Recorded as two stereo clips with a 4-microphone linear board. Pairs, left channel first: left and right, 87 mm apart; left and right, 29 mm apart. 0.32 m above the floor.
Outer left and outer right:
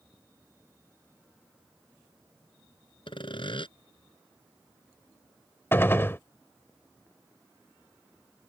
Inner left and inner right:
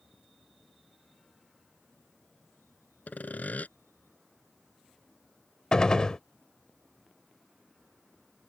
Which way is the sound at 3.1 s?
75° left (ahead or behind).